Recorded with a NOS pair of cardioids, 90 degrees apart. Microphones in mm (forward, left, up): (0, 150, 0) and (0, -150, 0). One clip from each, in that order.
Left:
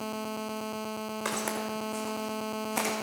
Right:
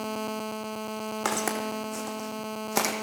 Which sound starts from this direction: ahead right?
Footsteps, at 1.2 s.